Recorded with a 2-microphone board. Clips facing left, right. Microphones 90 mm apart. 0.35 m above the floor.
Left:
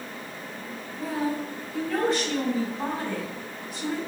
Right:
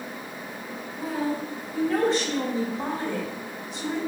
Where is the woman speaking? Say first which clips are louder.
Even; 30° right (ahead or behind), 1.3 m.